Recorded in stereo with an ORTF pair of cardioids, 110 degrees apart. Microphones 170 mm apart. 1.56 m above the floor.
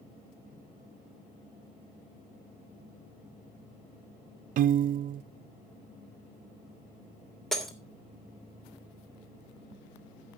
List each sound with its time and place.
4.6 s a piano: 55° right, 0.5 m
7.5 s breaking glass: 5° left, 2.5 m